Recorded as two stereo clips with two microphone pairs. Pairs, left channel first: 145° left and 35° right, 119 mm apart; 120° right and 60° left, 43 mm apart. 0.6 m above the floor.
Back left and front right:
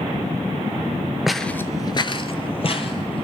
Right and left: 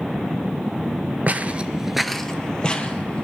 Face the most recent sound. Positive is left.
turn(degrees=180)